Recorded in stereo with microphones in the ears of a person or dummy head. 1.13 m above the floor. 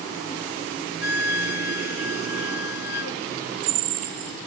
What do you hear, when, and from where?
1.0 s a flute: 65° left (ahead or behind)